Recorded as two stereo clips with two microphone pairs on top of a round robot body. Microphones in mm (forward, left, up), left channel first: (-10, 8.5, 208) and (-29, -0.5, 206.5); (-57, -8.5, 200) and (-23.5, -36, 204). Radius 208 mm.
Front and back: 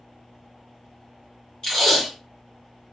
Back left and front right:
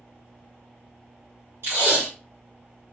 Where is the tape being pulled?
40° right, 0.8 m.